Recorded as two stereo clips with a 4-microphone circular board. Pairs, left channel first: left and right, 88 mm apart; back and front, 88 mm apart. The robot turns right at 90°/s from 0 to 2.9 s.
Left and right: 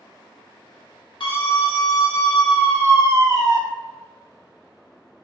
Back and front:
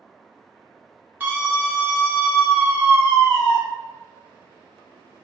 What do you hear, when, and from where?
1.2 s a scream: 65° left, 1.3 m; by 3.6 s 140° right, 1.3 m